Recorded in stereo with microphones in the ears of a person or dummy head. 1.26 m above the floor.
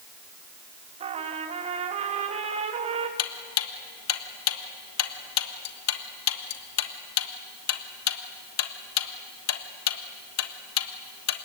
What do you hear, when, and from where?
1.0 s a trumpet: 30° right (ahead or behind), 1.6 m
3.2 s ticking: 85° left, 1.4 m